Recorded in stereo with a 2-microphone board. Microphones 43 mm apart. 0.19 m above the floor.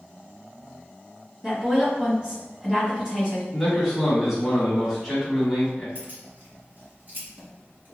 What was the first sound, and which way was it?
A woman speaking, 20° right (ahead or behind).